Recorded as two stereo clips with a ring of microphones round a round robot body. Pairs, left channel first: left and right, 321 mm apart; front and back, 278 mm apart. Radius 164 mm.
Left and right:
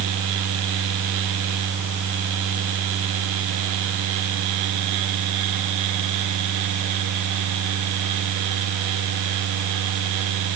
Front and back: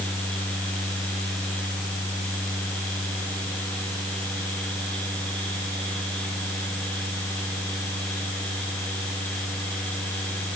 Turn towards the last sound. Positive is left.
No sound to turn to.